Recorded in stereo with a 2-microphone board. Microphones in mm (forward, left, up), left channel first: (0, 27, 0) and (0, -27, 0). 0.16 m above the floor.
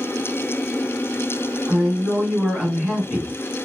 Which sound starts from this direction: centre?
A man speaking, at 1.7 s.